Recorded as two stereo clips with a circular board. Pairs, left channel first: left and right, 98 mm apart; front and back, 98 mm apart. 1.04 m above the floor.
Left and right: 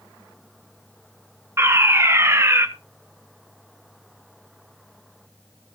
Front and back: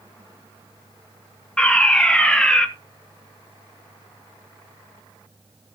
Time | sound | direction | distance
1.6 | a fire alarm | 70° right | 1.1 m